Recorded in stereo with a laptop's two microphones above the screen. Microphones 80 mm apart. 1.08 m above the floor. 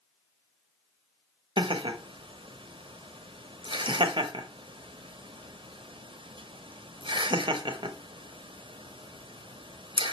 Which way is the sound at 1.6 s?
80° right.